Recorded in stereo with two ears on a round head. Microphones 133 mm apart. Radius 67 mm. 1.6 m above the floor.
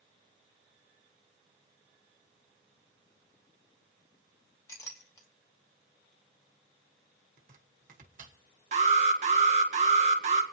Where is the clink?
20° left (ahead or behind), 2.5 m.